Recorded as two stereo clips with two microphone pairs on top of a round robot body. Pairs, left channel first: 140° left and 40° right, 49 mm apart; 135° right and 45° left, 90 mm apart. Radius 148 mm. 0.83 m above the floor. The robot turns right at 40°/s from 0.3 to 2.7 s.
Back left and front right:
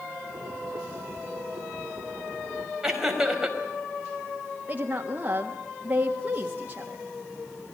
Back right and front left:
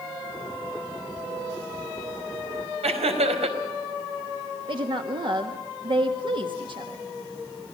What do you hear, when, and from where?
2.8 s laughter: 40° left, 4.5 m
4.7 s a woman speaking: 15° left, 1.8 m